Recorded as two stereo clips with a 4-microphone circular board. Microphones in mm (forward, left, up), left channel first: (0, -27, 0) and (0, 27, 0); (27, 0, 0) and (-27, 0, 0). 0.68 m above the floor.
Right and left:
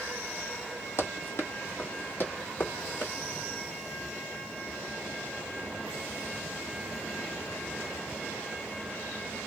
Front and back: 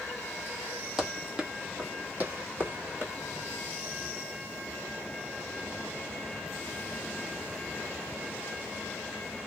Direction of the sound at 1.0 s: 105° right.